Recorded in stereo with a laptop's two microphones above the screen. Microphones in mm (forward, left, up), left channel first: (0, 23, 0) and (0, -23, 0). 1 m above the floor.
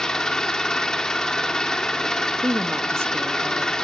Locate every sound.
0.0 s an engine running: 10° left (ahead or behind), 1.9 m
2.4 s a woman speaking: 70° right (ahead or behind), 1.6 m